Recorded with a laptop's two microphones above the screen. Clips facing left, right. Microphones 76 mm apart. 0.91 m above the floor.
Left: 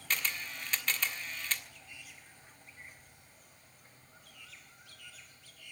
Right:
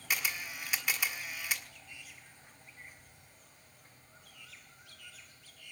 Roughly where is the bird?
No bird in this recording.